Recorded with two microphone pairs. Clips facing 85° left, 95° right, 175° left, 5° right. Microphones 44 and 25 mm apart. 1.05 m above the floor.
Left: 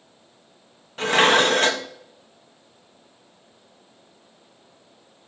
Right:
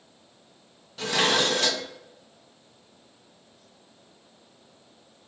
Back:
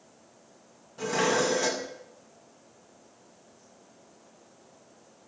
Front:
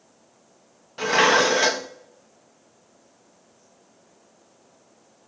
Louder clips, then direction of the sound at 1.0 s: Left 7 dB, front 8 dB; 35° left.